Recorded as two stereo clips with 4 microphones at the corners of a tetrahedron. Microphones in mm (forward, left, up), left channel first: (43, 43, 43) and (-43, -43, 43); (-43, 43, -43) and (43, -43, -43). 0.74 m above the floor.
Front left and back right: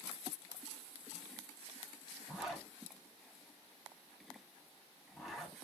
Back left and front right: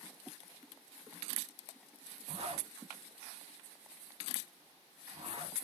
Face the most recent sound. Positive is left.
turn(degrees=-45)